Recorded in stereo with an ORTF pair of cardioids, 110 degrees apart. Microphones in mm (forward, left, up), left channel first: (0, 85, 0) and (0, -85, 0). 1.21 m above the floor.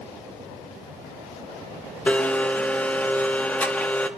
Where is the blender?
10° left, 1.2 m.